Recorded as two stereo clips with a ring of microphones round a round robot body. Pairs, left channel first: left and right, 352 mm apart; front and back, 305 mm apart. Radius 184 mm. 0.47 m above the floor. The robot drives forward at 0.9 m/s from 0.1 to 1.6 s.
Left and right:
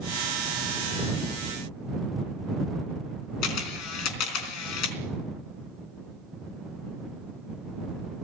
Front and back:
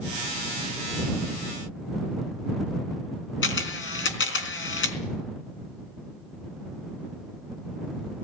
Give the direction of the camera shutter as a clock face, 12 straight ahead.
10 o'clock.